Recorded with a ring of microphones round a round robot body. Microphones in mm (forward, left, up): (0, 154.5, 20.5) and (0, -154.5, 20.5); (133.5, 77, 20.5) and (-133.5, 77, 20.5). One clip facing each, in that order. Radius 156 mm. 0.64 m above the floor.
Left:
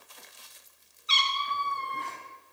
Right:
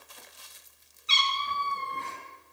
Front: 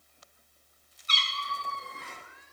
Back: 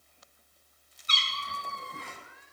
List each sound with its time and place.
1.1 s a cat meowing: 150° right, 2 m